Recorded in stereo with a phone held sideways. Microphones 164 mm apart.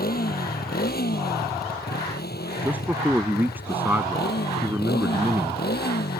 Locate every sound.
0.0 s a motorcycle: 70° left (ahead or behind); by 6.2 s 85° left
2.6 s a man speaking: 10° right (ahead or behind)